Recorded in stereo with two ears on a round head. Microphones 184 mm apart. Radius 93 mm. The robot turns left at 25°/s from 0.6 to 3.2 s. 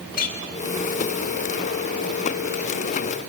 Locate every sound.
0.1 s a clink: 45° left (ahead or behind), 2.5 m